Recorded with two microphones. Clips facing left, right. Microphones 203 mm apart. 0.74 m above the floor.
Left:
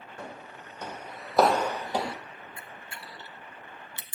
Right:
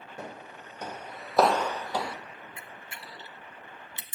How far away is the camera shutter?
About 0.5 m.